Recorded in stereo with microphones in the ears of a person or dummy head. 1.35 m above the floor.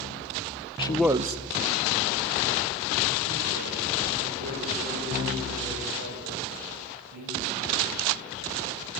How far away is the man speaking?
About 0.6 m.